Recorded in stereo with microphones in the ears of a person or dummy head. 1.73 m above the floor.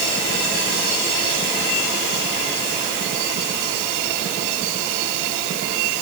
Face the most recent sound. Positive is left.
No sound to turn to.